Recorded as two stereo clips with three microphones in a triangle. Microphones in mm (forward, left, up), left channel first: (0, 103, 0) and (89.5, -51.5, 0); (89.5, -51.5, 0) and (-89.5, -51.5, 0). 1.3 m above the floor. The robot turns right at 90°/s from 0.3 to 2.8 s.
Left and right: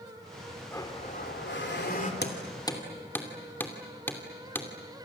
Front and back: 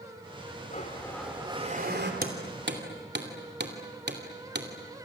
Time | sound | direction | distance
0.7 | a blender | 40° left | 3 m
2.2 | hammering | 145° left | 2.5 m